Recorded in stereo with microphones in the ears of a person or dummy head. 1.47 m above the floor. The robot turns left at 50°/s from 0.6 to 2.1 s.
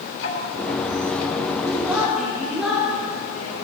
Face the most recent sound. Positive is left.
turn(degrees=-5)  # may be behind; listen again after turning